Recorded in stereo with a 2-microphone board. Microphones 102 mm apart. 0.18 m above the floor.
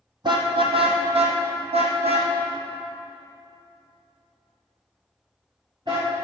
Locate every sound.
0.2 s a car horn: 50° right (ahead or behind), 2.5 m